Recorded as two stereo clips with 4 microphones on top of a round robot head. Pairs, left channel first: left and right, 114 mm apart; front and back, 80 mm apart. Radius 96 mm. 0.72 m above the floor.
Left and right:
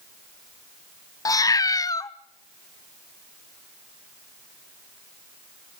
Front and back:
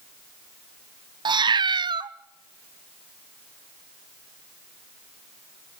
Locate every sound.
1.2 s a cat meowing: 150° left, 0.6 m